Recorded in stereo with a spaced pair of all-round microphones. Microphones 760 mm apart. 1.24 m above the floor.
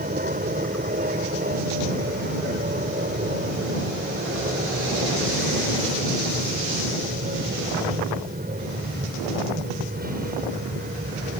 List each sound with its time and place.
0.0 s an aircraft: 10° right (ahead or behind)